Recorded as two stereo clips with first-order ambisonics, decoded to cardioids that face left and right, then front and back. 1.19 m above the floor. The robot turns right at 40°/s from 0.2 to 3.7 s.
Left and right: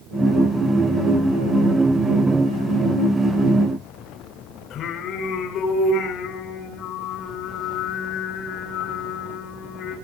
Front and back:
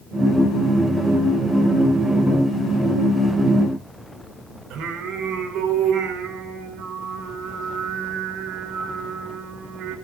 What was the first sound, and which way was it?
Singing, 140° left.